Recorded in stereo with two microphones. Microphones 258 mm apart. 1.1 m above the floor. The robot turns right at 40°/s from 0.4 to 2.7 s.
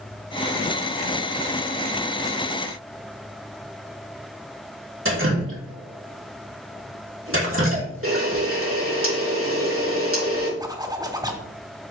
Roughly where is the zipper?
Centre.